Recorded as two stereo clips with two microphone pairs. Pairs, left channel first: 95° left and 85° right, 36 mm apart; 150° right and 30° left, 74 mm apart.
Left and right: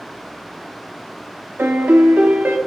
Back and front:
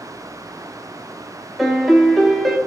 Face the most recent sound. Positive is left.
turn(degrees=-60)